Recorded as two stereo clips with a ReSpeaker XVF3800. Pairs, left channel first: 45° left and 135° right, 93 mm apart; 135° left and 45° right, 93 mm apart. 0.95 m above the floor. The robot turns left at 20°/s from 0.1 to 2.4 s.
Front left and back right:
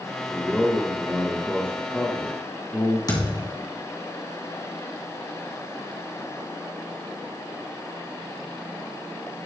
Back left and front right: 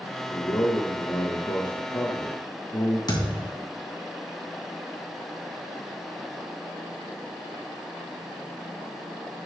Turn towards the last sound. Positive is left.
turn(degrees=90)